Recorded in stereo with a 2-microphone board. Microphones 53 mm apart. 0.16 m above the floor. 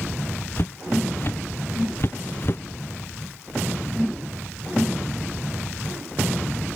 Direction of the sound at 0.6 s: 45° left (ahead or behind).